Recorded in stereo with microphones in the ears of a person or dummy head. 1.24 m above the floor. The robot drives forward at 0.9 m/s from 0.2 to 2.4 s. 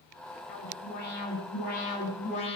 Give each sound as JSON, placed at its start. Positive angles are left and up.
{"t": 0.5, "sound": "an alarm", "side_deg": 60, "distance_m": 7.0}